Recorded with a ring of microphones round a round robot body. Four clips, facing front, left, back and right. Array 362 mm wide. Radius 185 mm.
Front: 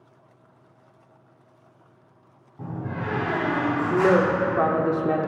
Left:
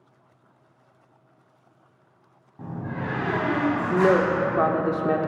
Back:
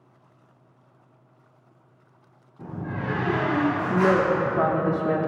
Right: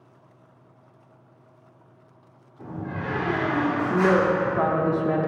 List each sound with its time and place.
2.6 s a door slam: 45° left, 2.5 m
3.9 s a woman speaking: 60° left, 0.8 m